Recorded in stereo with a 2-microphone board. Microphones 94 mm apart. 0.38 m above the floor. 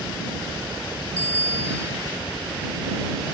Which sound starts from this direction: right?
A bicycle bell, at 1.2 s.